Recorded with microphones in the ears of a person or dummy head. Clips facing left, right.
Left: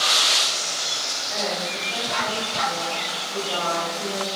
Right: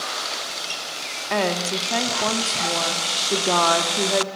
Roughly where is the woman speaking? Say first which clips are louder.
Right 6 dB; right.